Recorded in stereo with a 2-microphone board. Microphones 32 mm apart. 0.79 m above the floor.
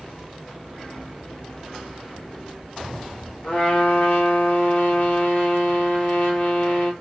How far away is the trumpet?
About 0.9 m.